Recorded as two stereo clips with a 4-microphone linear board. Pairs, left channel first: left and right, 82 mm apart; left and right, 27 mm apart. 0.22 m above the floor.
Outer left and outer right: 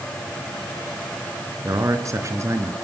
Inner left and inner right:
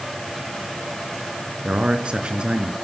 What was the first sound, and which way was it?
A man speaking, 45° right (ahead or behind).